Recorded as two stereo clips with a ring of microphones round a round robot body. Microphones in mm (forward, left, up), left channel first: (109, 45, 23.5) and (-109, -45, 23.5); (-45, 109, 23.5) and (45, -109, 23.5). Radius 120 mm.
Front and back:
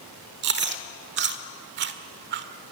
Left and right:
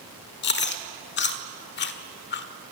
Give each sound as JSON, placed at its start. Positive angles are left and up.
{"t": 0.4, "sound": "chewing", "azimuth_deg": 160, "distance_m": 1.4}